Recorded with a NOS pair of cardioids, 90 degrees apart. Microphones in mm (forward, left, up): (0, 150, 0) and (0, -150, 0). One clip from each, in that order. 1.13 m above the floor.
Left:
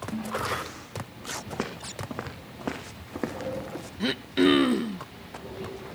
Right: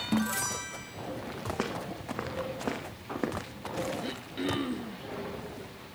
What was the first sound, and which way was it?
A snare drum, 55° right.